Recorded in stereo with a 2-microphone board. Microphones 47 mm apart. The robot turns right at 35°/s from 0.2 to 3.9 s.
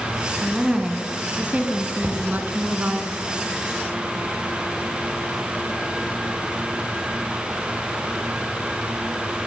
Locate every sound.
0.4 s a woman speaking: 175° right, 1.9 m; by 3.0 s 80° right, 1.9 m
2.0 s knocking: 35° right (ahead or behind), 3.5 m; by 2.2 s 40° right (ahead or behind), 3.5 m